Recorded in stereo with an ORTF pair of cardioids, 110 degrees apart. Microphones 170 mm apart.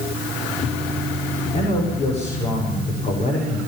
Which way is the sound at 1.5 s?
40° left.